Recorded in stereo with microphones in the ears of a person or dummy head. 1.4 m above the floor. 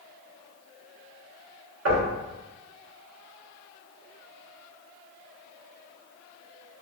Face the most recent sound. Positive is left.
turn(degrees=-85)